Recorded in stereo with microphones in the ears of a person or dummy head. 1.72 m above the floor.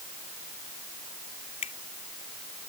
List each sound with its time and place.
1.6 s a finger snap: 35° left (ahead or behind)